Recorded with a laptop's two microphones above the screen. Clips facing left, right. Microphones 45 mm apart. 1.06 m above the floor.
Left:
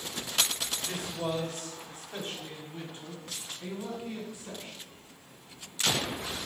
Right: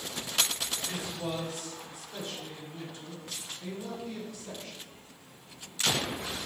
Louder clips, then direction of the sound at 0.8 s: Left 3 dB; 60° left (ahead or behind).